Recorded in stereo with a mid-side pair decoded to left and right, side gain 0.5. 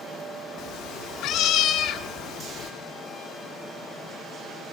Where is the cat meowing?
70° left, 1.7 m.